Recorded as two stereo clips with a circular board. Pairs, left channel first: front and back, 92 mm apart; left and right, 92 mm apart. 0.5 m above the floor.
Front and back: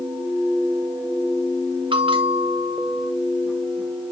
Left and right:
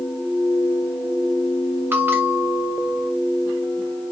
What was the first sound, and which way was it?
A bell, 155° right.